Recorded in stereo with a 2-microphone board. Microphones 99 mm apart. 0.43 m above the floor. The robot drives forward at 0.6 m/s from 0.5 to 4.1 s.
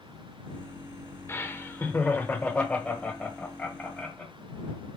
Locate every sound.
1.3 s laughter: 25° left (ahead or behind), 1.0 m; by 4.3 s 10° left (ahead or behind), 2.5 m